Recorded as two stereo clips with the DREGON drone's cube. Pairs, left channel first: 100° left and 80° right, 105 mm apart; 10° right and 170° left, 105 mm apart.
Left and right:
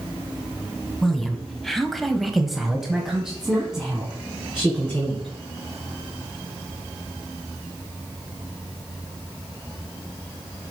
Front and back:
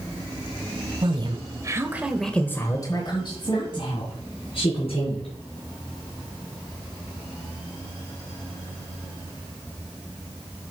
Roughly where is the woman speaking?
Behind.